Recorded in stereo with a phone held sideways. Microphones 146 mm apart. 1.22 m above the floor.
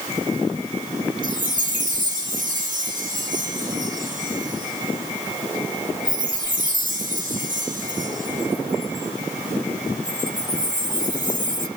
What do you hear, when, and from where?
1.2 s a chime: 60° right (ahead or behind), 1.4 m